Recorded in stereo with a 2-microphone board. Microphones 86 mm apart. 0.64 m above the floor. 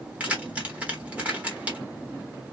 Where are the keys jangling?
15° right (ahead or behind), 1.0 m.